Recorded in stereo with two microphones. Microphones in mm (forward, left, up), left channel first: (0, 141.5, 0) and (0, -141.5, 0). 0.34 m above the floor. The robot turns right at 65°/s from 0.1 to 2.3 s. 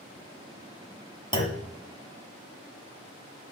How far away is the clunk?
About 1.2 m.